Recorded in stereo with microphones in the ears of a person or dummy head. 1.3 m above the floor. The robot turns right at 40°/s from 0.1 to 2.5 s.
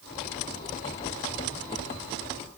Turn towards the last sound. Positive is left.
No sound to turn to.